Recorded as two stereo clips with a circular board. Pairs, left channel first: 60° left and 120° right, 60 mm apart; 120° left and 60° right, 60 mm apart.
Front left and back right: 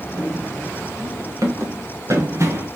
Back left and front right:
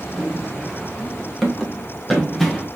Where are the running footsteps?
145° right, 4 m; by 2.7 s 155° right, 2.5 m.